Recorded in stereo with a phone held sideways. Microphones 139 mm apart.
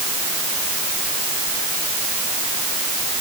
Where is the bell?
I don't hear a bell.